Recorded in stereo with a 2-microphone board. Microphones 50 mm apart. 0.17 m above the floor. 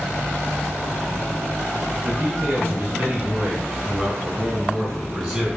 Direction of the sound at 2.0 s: 30° right (ahead or behind).